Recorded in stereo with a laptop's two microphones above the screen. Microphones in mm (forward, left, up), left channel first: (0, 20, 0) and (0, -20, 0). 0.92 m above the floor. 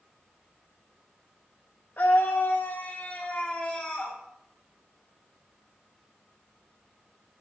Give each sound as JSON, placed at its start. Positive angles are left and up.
{"t": 2.0, "sound": "a scream", "side_deg": 55, "distance_m": 0.8}